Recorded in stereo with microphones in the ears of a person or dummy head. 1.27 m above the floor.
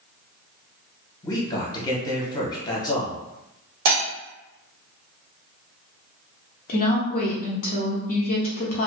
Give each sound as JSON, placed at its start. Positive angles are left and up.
{"t": 1.2, "sound": "a man speaking", "side_deg": 25, "distance_m": 0.8}
{"t": 3.9, "sound": "breaking glass", "side_deg": -65, "distance_m": 1.4}
{"t": 6.7, "sound": "a woman speaking", "side_deg": 40, "distance_m": 0.7}